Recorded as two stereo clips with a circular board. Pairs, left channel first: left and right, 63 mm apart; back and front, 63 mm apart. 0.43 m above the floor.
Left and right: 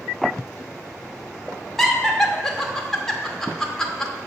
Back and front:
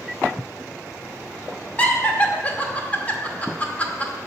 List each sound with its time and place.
1.8 s laughter: 165° left, 0.8 m